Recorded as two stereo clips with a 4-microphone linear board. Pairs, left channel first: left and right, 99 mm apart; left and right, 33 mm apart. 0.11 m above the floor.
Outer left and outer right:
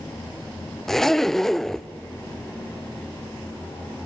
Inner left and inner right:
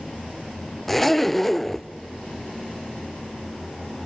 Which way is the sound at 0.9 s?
5° left (ahead or behind).